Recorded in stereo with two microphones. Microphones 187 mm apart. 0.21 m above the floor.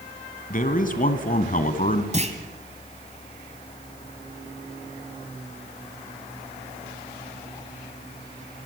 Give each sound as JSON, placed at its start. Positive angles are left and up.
{"t": 0.5, "sound": "a man speaking", "side_deg": 45, "distance_m": 1.8}
{"t": 2.1, "sound": "a clunk", "side_deg": -40, "distance_m": 1.6}